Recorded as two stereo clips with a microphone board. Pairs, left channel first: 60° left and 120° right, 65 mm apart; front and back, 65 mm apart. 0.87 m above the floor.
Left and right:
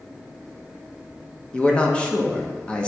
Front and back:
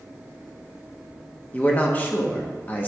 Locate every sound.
1.5 s a man speaking: 10° left, 0.8 m